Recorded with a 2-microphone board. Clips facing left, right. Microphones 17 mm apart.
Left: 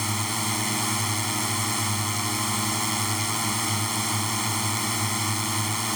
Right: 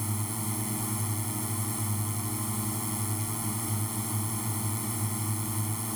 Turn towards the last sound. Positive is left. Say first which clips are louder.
# left 8 dB
turn(degrees=50)  # may be behind; listen again after turning